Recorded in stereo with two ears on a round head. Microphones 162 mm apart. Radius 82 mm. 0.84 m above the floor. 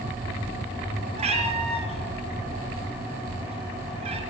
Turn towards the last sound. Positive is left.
turn(degrees=-35)  # may be behind; listen again after turning